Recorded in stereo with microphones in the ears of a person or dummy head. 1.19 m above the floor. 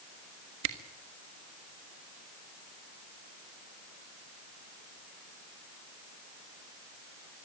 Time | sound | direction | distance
0.6 | a camera shutter | 65° right (ahead or behind) | 1.5 m